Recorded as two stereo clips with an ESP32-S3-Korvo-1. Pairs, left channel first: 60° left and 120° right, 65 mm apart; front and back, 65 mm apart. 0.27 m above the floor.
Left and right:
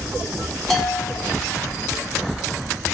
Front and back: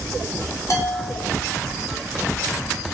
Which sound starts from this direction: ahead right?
A bell, at 0.7 s.